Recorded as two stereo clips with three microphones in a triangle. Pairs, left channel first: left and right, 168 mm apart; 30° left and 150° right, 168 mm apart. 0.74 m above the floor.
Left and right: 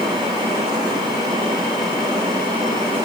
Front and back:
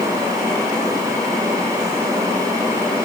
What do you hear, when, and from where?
Only background noise.